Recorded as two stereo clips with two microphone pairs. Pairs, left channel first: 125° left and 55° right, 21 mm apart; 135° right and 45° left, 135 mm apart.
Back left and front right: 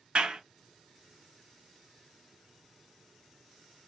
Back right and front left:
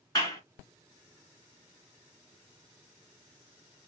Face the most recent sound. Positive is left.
turn(degrees=-75)